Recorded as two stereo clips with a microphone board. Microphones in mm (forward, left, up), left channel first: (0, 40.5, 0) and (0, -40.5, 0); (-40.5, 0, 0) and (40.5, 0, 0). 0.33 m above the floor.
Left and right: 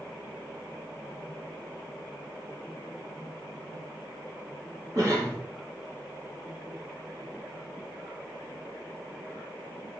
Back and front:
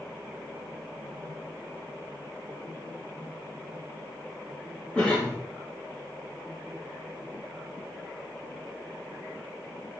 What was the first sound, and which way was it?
A cough, 110° right.